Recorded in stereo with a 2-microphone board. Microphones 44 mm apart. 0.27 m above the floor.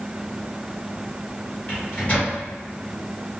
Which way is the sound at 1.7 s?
40° left (ahead or behind).